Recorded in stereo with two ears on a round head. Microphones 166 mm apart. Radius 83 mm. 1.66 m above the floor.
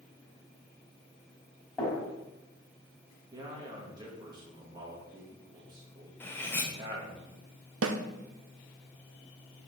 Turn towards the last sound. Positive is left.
turn(degrees=-80)